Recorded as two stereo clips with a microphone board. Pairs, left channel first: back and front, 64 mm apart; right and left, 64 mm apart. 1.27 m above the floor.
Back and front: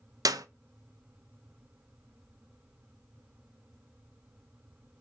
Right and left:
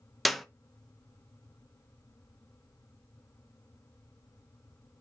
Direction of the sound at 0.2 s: Straight ahead.